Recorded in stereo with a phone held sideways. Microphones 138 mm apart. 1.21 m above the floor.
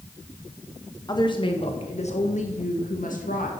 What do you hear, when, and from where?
1.1 s a woman speaking: 30° left (ahead or behind), 1.7 m; by 3.5 s 75° left (ahead or behind), 1.9 m